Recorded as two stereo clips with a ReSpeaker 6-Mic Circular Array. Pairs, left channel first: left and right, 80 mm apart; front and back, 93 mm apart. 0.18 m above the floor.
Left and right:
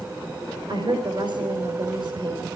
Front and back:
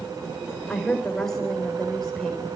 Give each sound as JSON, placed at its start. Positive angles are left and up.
{"t": 0.7, "sound": "a woman speaking", "azimuth_deg": -85, "distance_m": 4.5}